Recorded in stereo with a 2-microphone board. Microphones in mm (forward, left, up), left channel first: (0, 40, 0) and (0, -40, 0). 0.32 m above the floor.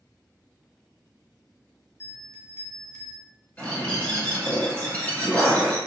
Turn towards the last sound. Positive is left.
turn(degrees=15)  # may be behind; listen again after turning